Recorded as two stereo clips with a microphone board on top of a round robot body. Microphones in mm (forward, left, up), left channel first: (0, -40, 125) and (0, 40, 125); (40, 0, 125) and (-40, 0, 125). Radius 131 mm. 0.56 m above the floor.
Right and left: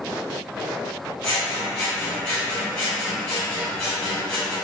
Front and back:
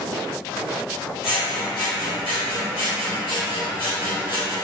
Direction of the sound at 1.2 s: 10° right.